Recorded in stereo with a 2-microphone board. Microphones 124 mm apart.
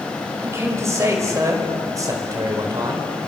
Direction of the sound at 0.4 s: 20° right (ahead or behind).